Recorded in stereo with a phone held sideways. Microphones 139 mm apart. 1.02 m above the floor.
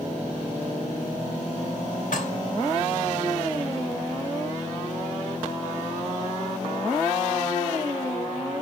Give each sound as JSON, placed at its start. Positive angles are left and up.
{"t": 2.1, "sound": "dishes clattering", "side_deg": 80, "distance_m": 3.0}